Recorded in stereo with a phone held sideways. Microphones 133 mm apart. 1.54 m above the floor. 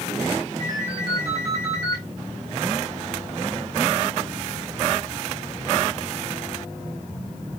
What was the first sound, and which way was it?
A ringtone, 25° right (ahead or behind).